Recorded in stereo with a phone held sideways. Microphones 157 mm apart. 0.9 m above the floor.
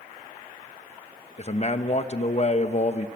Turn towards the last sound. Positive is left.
turn(degrees=45)  # may be behind; listen again after turning